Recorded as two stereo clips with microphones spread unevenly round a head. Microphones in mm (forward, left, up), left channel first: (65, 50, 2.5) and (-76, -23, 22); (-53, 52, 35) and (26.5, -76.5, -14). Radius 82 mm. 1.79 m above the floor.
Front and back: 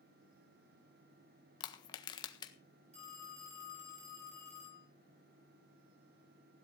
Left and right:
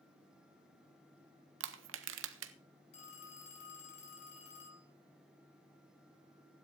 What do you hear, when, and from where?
1.6 s crushing: 40° right, 1.4 m
2.9 s a phone ringing: 160° left, 6 m